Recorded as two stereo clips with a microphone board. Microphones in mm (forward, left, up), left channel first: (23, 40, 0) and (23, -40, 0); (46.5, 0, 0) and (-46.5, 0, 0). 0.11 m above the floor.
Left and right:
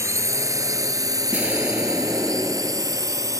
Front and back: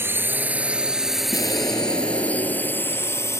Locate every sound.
0.0 s a drone: 125° right; by 3.4 s 55° right
1.3 s an explosion: 25° right